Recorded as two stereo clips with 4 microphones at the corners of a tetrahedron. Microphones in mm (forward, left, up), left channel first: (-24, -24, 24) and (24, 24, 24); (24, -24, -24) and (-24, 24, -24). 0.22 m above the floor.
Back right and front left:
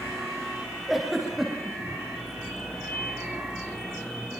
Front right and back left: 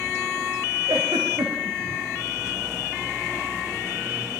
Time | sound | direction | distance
0.9 | a giggle | 130° left | 7.5 m